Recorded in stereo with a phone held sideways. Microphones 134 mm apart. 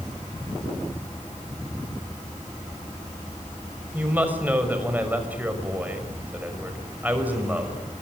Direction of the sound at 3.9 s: 10° right (ahead or behind).